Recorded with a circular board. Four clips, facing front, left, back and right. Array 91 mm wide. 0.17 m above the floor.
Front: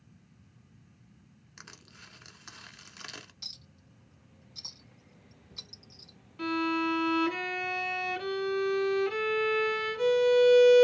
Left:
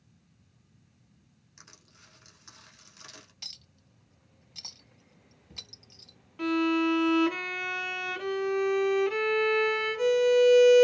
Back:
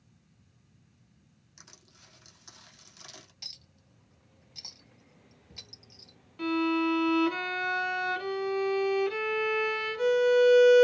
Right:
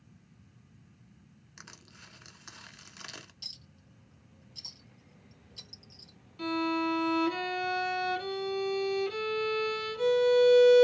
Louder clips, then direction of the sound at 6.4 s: Left 5 dB, back 2 dB; 90° left.